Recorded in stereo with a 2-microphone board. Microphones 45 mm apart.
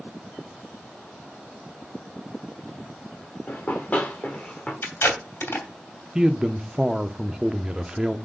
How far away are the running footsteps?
About 2.5 m.